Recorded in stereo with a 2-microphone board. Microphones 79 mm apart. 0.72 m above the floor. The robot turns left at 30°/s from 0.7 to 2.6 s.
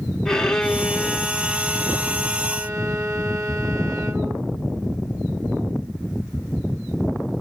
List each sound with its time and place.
0.2 s a violin: 10° left, 0.7 m; by 4.4 s 50° right, 0.7 m